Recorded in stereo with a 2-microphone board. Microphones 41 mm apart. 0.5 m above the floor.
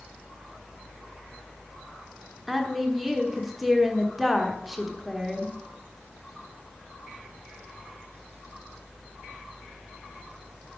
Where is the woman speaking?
5° right (ahead or behind), 1.4 m.